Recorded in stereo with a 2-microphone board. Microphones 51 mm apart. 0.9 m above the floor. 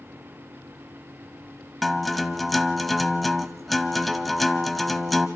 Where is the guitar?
5° left (ahead or behind), 0.8 m.